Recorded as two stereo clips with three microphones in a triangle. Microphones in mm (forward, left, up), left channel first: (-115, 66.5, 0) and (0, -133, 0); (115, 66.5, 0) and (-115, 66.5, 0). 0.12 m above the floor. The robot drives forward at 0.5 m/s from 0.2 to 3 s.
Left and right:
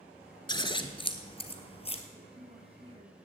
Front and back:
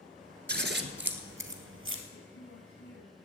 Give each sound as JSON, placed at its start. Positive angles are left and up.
{"t": 0.5, "sound": "scissors", "azimuth_deg": -175, "distance_m": 1.0}
{"t": 2.1, "sound": "a woman speaking", "azimuth_deg": 0, "distance_m": 2.5}